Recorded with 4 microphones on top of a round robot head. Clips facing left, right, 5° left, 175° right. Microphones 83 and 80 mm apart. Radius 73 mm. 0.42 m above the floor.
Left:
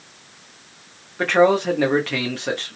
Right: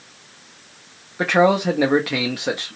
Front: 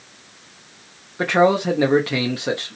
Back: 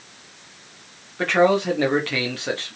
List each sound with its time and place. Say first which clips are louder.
1.2 s a man speaking: even, front 1 dB; 25° right, 0.8 m